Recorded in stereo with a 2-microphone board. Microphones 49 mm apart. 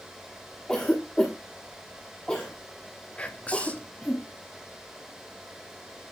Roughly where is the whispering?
Left.